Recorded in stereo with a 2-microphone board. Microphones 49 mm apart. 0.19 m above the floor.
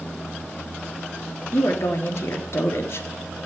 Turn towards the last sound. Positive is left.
turn(degrees=60)  # may be behind; listen again after turning